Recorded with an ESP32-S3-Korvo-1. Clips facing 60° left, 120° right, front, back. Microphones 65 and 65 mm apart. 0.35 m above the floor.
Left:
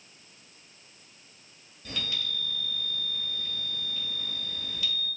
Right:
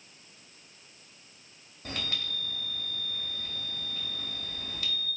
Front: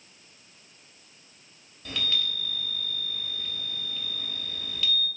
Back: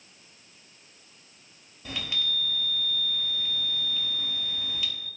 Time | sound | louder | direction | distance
1.9 | a chime | even, front 1 dB | 105° right | 1.0 m